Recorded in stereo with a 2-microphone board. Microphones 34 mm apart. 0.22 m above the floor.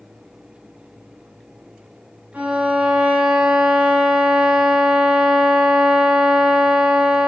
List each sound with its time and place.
2.3 s a violin: 50° right (ahead or behind), 3 m